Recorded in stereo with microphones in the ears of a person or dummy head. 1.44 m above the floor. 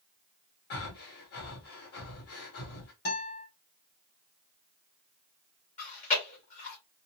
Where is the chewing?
40° left (ahead or behind), 1.8 m.